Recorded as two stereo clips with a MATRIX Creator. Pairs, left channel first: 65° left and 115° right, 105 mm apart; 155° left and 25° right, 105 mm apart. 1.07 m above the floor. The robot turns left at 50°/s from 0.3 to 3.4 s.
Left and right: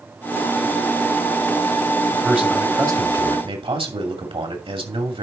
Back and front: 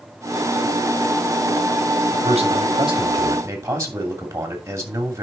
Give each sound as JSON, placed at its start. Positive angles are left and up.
{"t": 2.1, "sound": "a man speaking", "azimuth_deg": -20, "distance_m": 2.5}